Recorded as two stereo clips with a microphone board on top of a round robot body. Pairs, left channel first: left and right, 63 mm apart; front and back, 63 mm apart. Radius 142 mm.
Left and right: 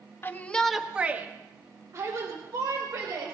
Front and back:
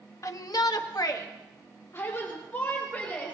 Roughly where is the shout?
Ahead left.